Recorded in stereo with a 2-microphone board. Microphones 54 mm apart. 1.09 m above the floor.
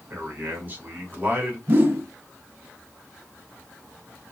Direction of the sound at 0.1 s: 30° right (ahead or behind).